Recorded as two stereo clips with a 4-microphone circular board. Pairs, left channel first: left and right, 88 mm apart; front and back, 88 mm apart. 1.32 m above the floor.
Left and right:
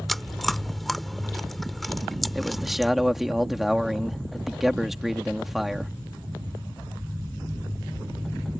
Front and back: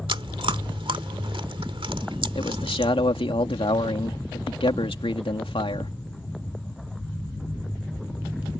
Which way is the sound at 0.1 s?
Straight behind.